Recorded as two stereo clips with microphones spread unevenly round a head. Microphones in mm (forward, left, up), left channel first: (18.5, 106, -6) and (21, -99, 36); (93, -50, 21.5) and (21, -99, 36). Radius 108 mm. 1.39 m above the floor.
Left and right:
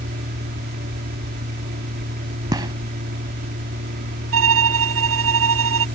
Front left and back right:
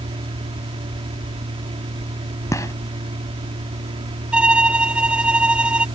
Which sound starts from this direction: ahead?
A gunshot, at 2.5 s.